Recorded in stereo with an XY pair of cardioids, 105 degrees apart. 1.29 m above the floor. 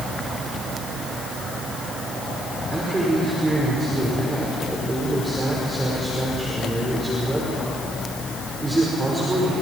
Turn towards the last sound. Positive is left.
turn(degrees=-15)